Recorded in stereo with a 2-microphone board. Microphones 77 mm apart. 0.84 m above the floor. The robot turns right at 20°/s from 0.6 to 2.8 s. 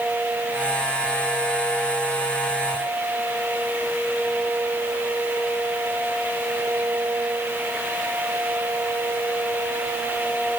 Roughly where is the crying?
No crying in this recording.